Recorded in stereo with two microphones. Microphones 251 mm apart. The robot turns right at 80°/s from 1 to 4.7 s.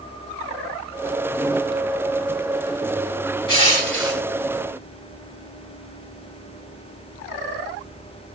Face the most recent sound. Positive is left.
turn(degrees=120)